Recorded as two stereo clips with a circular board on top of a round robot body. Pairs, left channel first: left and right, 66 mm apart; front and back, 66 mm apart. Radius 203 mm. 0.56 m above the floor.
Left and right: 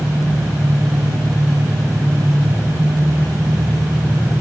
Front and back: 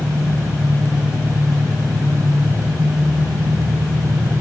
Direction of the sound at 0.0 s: 175° right.